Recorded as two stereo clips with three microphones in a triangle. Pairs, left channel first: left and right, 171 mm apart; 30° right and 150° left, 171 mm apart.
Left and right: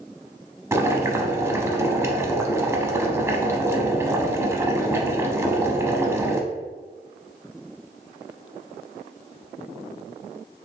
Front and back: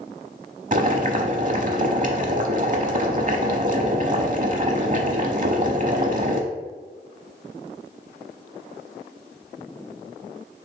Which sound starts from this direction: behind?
Boiling, at 0.7 s.